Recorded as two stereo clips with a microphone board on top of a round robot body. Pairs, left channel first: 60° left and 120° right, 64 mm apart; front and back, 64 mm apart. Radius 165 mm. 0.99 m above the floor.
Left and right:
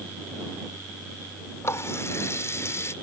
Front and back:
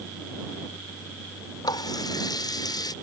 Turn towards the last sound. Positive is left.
turn(degrees=10)